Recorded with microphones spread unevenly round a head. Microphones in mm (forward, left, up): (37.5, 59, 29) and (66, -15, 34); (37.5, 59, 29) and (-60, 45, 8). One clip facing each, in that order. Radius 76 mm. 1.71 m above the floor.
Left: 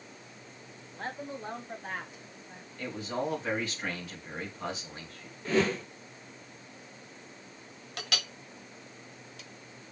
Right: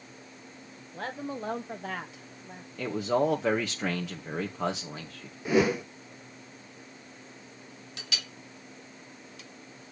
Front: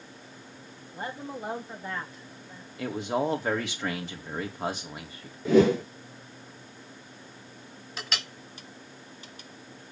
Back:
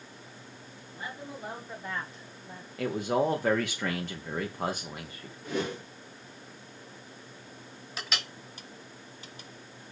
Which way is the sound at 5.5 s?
10° left.